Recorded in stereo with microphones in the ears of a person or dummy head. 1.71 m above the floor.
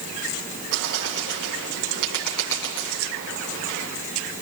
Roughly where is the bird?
Right.